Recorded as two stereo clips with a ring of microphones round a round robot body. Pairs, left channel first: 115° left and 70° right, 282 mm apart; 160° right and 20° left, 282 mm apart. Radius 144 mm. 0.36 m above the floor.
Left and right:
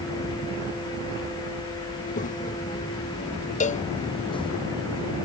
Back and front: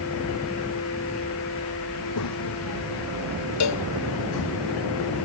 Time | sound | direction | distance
1.9 | a child speaking | 175° left | ?
3.6 | a cowbell | 175° left | ?